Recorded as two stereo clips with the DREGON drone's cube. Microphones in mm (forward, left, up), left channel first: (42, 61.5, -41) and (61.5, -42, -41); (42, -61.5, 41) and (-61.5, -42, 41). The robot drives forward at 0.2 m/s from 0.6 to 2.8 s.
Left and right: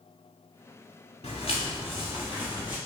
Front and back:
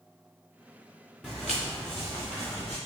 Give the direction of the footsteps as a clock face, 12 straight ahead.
9 o'clock.